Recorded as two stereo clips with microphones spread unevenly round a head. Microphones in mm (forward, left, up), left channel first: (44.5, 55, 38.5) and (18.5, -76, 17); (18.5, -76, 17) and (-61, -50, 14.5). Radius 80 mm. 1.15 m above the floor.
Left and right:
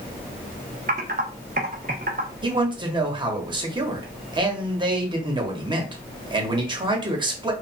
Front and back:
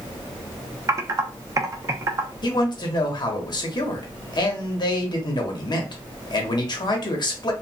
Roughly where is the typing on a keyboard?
Behind right.